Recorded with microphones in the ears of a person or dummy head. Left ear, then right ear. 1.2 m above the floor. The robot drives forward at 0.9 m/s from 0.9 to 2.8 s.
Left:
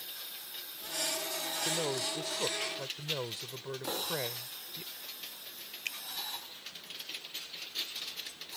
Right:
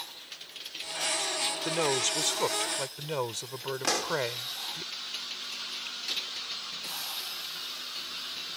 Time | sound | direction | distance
1.6 | a man speaking | 50° right (ahead or behind) | ?
3.8 | a pop | 65° right (ahead or behind) | ?
5.8 | a finger snap | 50° left (ahead or behind) | ?